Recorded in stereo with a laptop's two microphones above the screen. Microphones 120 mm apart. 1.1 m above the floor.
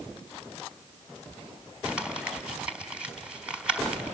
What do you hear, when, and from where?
1.9 s crumpling: 10° right (ahead or behind), 3.5 m